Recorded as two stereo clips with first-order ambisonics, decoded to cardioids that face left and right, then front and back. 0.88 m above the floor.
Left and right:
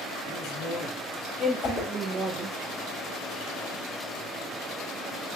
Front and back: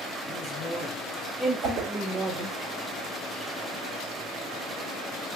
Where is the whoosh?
135° left, 1.1 m.